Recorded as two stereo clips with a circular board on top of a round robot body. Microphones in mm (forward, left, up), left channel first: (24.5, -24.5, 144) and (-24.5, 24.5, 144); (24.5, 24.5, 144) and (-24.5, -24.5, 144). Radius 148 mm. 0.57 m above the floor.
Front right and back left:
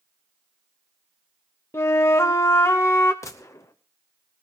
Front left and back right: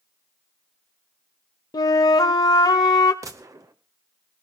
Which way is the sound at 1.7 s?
10° left.